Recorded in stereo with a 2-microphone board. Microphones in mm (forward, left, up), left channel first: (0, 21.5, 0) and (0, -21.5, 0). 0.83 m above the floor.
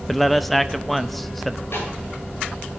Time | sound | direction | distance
0.1 | a man speaking | 5° left (ahead or behind) | 0.7 m
1.7 | a snare drum | 70° left (ahead or behind) | 9.5 m